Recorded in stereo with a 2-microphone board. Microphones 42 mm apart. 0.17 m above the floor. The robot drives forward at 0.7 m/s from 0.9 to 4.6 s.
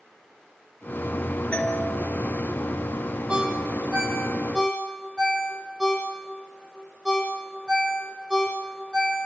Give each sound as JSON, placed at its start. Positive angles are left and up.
{"t": 1.5, "sound": "a doorbell", "side_deg": 30, "distance_m": 4.0}
{"t": 3.3, "sound": "a ringtone", "side_deg": -20, "distance_m": 4.5}